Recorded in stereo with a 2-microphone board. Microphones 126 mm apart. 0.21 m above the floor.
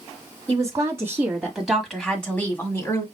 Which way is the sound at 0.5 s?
30° right (ahead or behind).